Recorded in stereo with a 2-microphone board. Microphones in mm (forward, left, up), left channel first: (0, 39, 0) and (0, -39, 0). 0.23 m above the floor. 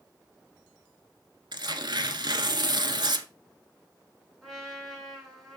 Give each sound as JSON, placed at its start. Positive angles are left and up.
{"t": 1.5, "sound": "tearing paper", "side_deg": -75, "distance_m": 0.9}
{"t": 4.4, "sound": "a trumpet", "side_deg": 0, "distance_m": 3.5}